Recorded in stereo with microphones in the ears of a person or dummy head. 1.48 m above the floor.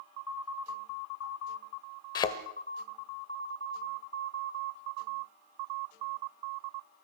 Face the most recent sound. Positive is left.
turn(degrees=25)  # may be behind; listen again after turning